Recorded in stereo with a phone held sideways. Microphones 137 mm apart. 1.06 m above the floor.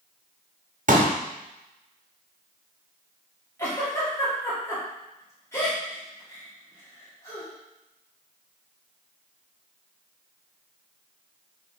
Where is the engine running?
No engine running in this recording.